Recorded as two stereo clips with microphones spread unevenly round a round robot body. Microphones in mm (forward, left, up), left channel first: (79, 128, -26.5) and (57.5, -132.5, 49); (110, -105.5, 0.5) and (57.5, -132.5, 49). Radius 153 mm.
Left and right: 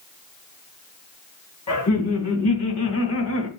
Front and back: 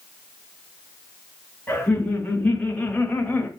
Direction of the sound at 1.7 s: 100° left.